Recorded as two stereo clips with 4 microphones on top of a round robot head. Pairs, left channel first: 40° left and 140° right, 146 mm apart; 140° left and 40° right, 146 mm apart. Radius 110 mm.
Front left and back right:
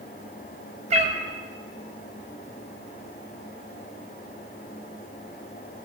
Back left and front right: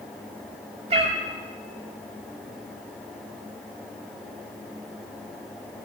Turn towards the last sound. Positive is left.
turn(degrees=-95)